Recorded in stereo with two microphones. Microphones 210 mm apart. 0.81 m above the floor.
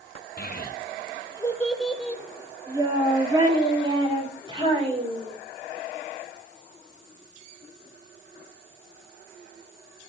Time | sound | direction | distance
0.4 | a child speaking | 55° left (ahead or behind) | 0.7 m